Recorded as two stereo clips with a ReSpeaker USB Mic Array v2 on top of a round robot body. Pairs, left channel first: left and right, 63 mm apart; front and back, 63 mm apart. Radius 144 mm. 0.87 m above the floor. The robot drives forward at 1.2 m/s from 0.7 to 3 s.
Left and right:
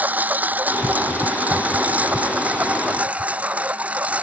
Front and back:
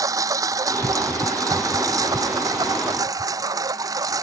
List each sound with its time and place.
0.0 s a lawn mower: 155° right